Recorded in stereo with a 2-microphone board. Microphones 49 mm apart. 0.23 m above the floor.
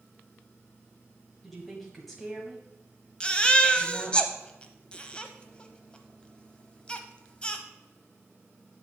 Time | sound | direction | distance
1.4 | a woman speaking | 5° left (ahead or behind) | 1.4 m
3.2 | a baby crying | 20° left (ahead or behind) | 0.8 m